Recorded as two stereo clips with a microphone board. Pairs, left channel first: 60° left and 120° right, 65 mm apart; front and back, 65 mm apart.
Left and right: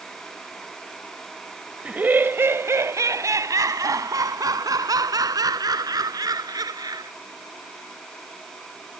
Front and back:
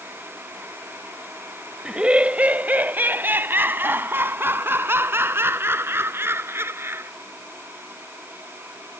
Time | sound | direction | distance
1.9 | laughter | 125° right | ?